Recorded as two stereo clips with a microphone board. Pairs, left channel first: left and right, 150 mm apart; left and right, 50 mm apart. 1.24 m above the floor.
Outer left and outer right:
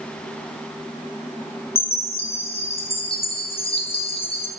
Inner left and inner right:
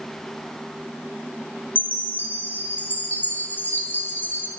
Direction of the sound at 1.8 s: 40° left (ahead or behind).